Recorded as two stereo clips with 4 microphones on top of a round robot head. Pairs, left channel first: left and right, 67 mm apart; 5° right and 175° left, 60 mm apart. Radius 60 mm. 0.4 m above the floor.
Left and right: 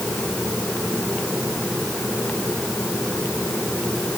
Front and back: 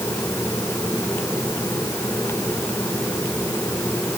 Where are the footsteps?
No footsteps in this recording.